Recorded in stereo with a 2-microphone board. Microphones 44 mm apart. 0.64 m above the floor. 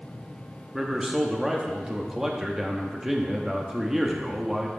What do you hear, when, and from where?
0.7 s a man speaking: 10° right (ahead or behind), 1.0 m